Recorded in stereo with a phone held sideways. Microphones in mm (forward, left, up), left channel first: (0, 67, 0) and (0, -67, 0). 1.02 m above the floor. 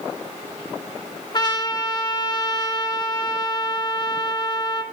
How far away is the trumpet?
About 2 m.